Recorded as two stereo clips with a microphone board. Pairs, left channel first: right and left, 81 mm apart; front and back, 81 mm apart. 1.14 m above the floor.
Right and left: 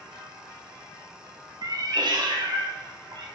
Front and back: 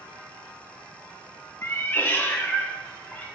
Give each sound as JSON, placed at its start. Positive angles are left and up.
{"t": 1.6, "sound": "a cat meowing", "azimuth_deg": 60, "distance_m": 0.7}